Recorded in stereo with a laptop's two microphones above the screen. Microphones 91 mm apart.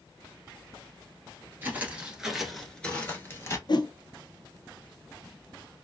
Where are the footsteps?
20° right (ahead or behind), 1.1 m; by 3.6 s 30° left (ahead or behind), 1.2 m.